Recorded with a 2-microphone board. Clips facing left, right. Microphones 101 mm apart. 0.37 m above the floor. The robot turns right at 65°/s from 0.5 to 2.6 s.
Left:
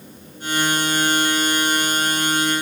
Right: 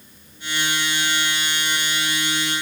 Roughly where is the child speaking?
No child speaking in this recording.